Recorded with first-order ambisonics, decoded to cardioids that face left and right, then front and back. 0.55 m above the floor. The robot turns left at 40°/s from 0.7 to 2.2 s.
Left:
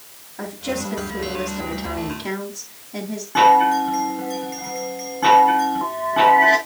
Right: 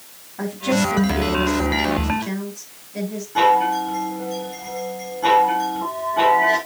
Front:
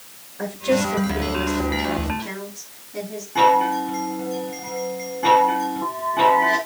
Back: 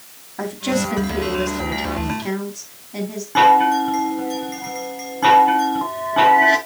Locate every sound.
0.4 s a woman speaking: 170° right, 4.5 m; by 3.2 s 130° left, 4.5 m
3.4 s a chime: 150° left, 3.5 m